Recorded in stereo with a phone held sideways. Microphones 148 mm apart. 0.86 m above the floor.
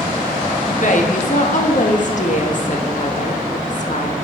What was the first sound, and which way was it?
A woman speaking, 60° left (ahead or behind).